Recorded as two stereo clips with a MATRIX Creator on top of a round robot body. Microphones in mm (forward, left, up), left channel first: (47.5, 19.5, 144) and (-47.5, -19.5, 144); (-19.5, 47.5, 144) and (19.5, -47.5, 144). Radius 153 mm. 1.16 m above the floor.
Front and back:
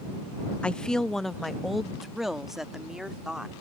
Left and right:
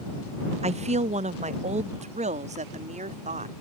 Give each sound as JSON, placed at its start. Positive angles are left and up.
{"t": 0.6, "sound": "a woman speaking", "azimuth_deg": -55}